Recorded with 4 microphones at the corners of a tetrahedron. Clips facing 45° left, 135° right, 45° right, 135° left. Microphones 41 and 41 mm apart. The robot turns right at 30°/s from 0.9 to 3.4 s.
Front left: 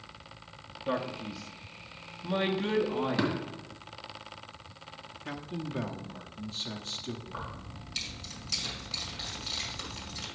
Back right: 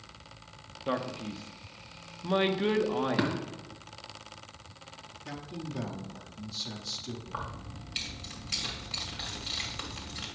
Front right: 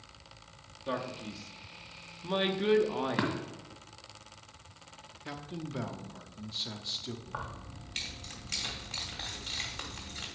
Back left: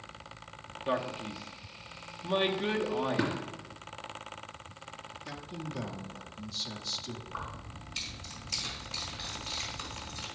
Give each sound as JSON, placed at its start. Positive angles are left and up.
{"t": 0.9, "sound": "a man speaking", "azimuth_deg": -170, "distance_m": 0.8}
{"t": 3.2, "sound": "tapping", "azimuth_deg": -55, "distance_m": 1.9}
{"t": 5.2, "sound": "a man speaking", "azimuth_deg": 5, "distance_m": 0.8}
{"t": 7.3, "sound": "keys jangling", "azimuth_deg": -70, "distance_m": 2.5}